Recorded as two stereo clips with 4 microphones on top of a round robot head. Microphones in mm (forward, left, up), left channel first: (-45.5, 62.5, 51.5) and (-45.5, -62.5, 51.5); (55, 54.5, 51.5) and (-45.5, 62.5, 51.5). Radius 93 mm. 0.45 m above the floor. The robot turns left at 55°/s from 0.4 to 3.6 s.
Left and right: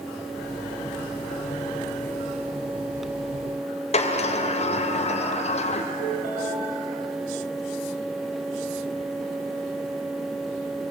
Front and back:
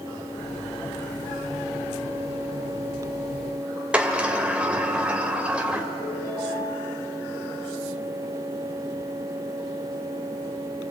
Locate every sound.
3.9 s a sliding door: 100° left, 2.5 m
6.0 s a ringtone: 70° right, 9.5 m